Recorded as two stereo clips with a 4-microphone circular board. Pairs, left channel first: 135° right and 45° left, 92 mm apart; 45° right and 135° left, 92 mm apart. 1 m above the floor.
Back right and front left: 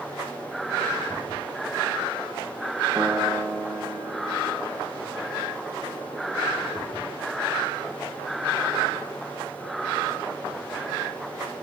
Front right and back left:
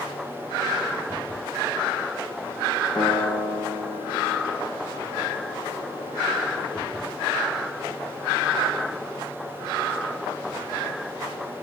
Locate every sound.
3.0 s a piano: 15° right, 4.5 m